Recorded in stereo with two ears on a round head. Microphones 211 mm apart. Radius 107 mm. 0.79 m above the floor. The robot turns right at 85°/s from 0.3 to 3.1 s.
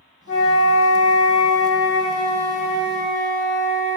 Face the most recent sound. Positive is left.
turn(degrees=-65)